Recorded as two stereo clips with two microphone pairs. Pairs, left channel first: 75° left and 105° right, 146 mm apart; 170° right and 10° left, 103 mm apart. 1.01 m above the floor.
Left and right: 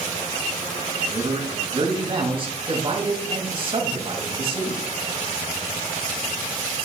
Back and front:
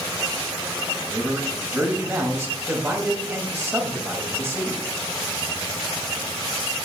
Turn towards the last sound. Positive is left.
turn(degrees=-55)